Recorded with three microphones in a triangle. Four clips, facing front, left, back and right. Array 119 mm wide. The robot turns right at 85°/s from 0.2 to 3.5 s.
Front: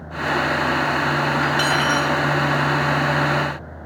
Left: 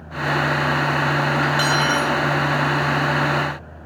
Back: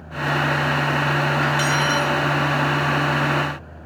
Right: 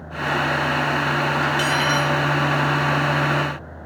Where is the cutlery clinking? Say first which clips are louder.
Left 1 dB, front 1 dB; 25° left, 1.7 m; by 2.2 s 85° left, 1.7 m.